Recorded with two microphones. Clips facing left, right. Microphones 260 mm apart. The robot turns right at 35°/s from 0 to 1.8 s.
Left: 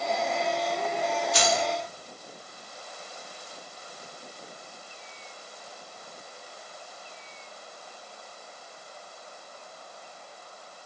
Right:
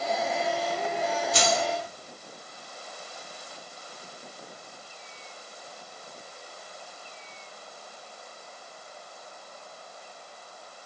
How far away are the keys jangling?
About 1.8 m.